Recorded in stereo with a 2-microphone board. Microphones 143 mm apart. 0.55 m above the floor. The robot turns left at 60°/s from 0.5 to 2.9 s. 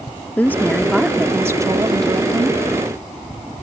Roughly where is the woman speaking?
Ahead left.